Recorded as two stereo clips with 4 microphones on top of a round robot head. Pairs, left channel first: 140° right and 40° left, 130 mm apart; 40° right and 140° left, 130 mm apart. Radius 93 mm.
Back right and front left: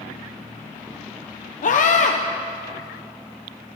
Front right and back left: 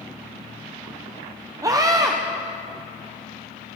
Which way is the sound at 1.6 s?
155° right.